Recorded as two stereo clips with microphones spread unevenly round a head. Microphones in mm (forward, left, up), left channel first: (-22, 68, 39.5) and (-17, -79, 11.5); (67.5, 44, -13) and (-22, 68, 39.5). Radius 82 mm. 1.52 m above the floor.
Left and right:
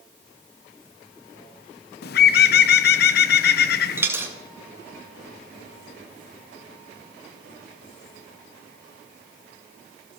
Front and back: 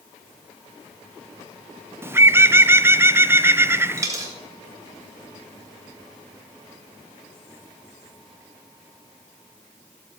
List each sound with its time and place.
2.0 s a bird: 110° left, 0.8 m
4.0 s a dropped coin: 170° right, 2.0 m